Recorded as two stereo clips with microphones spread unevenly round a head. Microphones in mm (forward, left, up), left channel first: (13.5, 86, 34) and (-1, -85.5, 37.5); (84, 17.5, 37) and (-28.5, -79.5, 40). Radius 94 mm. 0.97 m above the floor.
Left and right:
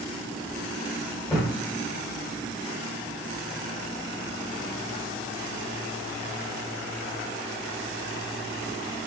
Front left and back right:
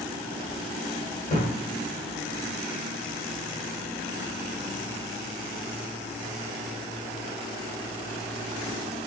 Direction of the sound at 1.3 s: 5° left.